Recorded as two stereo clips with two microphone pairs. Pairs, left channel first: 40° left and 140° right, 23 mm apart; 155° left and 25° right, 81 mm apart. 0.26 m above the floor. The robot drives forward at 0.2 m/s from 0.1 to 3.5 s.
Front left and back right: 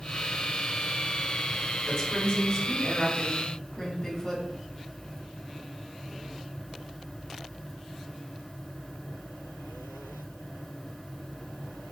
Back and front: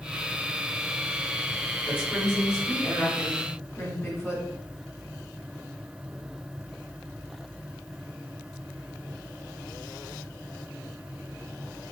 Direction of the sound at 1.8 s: 95° left.